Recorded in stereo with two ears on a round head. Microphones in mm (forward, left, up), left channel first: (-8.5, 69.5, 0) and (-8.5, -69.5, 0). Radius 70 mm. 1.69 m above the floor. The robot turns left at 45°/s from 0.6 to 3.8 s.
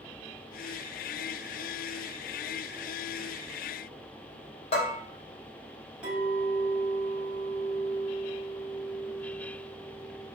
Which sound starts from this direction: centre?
A clink, at 6.0 s.